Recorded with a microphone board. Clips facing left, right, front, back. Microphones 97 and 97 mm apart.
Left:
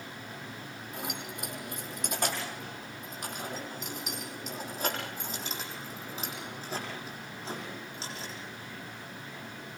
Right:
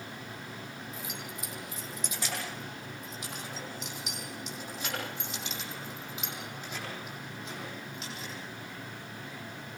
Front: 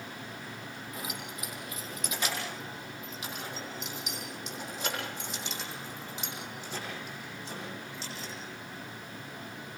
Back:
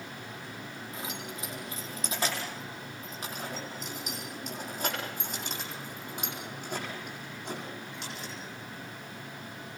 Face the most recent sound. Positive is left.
turn(degrees=150)